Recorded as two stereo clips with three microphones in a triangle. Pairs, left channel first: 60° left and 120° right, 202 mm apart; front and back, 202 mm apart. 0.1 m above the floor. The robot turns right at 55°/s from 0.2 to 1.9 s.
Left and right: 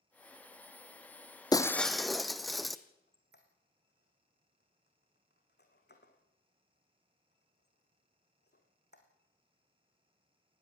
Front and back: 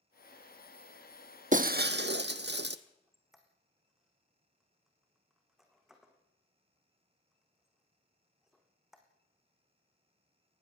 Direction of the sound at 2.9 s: 90° left.